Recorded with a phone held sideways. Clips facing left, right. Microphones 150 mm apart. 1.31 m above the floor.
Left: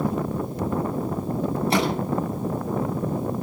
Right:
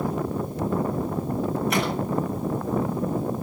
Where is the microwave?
30° left (ahead or behind), 8.5 m.